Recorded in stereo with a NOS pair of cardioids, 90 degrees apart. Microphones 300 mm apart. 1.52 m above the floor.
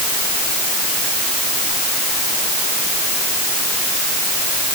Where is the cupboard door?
No cupboard door in this recording.